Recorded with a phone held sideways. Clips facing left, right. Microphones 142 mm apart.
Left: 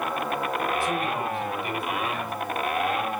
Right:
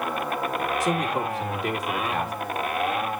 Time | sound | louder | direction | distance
0.8 | a man speaking | right 2 dB | 80° right | 2.5 m